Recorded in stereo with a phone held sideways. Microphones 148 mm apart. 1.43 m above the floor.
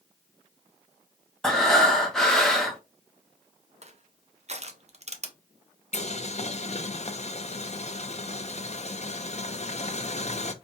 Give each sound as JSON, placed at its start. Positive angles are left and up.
{"t": 1.4, "sound": "breathing", "side_deg": 5, "distance_m": 1.2}
{"t": 3.8, "sound": "crushing", "side_deg": -50, "distance_m": 0.7}
{"t": 5.9, "sound": "boiling", "side_deg": 45, "distance_m": 0.5}